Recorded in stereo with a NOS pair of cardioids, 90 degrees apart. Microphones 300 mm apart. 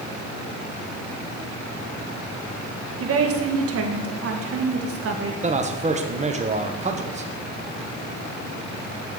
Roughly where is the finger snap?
I don't hear a finger snap.